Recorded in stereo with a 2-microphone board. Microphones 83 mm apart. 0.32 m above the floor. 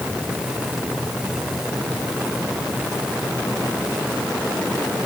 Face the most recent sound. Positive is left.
No sound to turn to.